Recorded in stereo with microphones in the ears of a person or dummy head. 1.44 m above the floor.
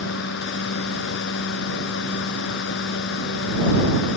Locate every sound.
0.0 s a fan: 65° left (ahead or behind)